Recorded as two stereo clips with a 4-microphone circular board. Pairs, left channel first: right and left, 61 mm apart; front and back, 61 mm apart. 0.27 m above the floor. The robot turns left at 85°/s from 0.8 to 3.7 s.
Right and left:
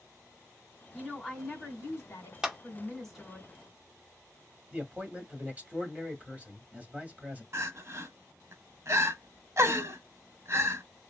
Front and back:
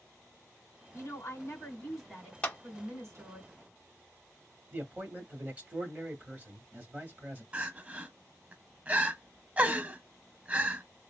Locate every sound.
0.9 s a woman speaking: 5° left, 2.0 m; by 3.4 s 155° left, 2.0 m
2.4 s a clap: 25° left, 0.7 m; by 2.6 s 10° left, 0.7 m
4.7 s a man speaking: 140° left, 1.1 m
7.5 s crying: 120° left, 0.5 m